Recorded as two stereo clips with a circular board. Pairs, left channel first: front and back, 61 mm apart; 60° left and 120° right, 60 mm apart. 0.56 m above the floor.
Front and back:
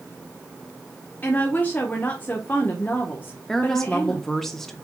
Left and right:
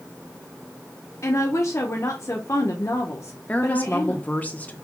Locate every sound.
1.2 s a woman speaking: 50° left, 1.0 m
3.5 s a woman speaking: 75° left, 0.8 m